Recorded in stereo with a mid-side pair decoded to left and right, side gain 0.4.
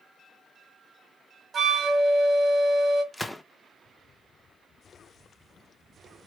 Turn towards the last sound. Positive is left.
turn(degrees=5)